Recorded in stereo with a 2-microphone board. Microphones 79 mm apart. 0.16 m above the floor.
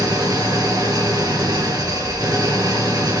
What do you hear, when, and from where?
0.0 s an engine running: 55° right (ahead or behind), 2.5 m